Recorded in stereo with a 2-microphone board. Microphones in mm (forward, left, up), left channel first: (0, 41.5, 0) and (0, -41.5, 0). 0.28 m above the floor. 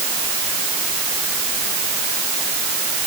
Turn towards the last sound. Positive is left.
No sound to turn to.